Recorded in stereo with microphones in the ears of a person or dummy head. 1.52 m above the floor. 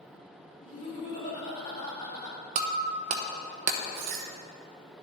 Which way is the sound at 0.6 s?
40° left (ahead or behind).